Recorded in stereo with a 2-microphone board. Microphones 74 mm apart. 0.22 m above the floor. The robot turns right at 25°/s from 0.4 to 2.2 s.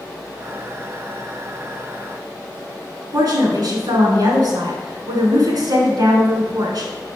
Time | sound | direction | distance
3.1 | a woman speaking | 60° right (ahead or behind) | 2 m